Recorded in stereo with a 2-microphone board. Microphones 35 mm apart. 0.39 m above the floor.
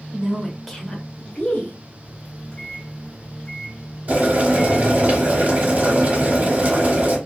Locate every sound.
0.1 s a woman speaking: 30° right (ahead or behind), 1.0 m; by 1.8 s 35° left (ahead or behind), 1.5 m
2.0 s a microwave: 25° left (ahead or behind), 1.2 m
4.1 s boiling: 50° right (ahead or behind), 1.2 m